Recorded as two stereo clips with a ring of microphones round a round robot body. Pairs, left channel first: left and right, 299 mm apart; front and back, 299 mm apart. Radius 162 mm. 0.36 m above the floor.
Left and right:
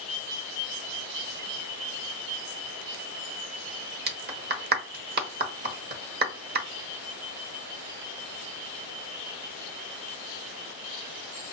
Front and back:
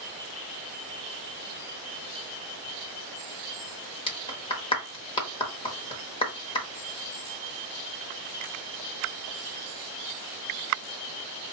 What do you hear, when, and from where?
4.1 s a clap: 65° right, 1.0 m